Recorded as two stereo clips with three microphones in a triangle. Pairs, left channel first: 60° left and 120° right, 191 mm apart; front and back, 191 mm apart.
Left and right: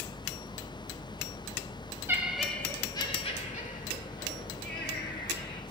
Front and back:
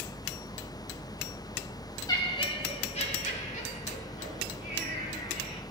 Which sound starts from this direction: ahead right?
Laughter, at 2.1 s.